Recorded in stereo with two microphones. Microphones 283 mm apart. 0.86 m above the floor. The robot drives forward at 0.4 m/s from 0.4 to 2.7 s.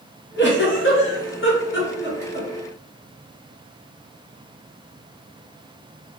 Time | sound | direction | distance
0.4 | a giggle | 40° left (ahead or behind) | 0.7 m